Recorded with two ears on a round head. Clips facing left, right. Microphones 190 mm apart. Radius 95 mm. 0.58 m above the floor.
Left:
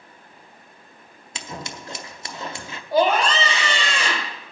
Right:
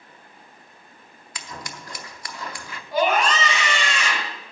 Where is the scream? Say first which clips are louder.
Left 2 dB; 30° left (ahead or behind), 2 m.